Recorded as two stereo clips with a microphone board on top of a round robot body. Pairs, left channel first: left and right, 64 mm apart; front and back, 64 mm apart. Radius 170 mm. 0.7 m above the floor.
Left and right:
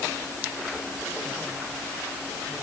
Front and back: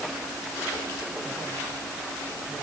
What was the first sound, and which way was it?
Only background noise.